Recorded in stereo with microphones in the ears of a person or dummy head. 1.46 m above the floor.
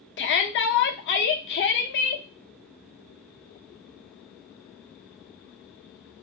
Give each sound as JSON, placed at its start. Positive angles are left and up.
{"t": 0.2, "sound": "a shout", "side_deg": 55, "distance_m": 0.6}